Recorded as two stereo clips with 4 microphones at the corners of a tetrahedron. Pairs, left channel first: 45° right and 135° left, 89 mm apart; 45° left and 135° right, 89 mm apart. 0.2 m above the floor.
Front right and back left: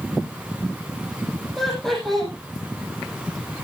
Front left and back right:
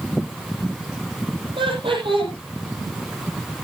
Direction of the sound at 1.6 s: 130° right.